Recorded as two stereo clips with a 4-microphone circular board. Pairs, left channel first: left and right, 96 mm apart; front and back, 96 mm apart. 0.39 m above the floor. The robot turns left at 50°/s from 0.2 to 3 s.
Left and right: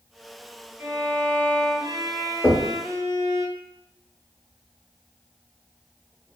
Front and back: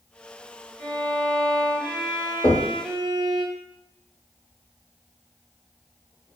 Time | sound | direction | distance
0.8 | a violin | 35° right | 1.3 m
2.4 | knocking | 15° left | 0.9 m